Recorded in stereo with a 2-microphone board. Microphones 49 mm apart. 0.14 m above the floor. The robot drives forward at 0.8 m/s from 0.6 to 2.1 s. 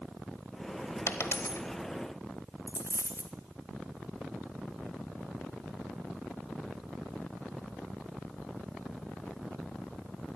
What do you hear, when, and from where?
1.1 s a dropped coin: 50° left (ahead or behind), 1.1 m; by 1.6 s 75° left (ahead or behind), 0.8 m
2.7 s a dropped coin: 50° right (ahead or behind), 1.0 m